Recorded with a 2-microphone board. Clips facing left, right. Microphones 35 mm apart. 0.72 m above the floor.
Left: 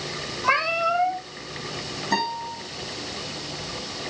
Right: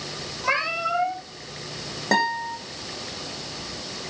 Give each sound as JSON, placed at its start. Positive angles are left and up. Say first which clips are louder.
{"t": 0.4, "sound": "a cat meowing", "louder": "left 3 dB", "side_deg": 0, "distance_m": 4.0}
{"t": 2.1, "sound": "a guitar", "louder": "right 4 dB", "side_deg": -85, "distance_m": 9.0}